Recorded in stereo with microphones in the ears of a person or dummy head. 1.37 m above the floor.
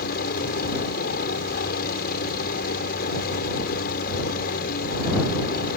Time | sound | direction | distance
0.0 | a helicopter | 50° left (ahead or behind) | ?